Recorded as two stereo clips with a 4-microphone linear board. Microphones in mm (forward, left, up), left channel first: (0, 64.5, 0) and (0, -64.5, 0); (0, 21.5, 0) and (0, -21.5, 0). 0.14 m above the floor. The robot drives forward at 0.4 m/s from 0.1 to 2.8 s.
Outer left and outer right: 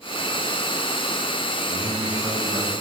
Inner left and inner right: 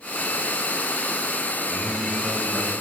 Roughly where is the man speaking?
Right.